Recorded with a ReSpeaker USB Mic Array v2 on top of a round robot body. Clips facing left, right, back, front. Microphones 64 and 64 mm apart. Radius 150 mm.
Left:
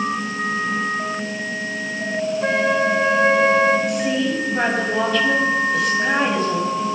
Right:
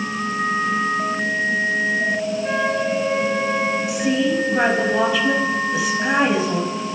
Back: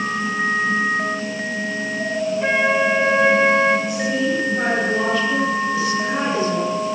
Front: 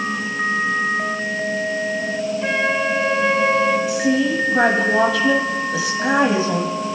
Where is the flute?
105° left, 3 m.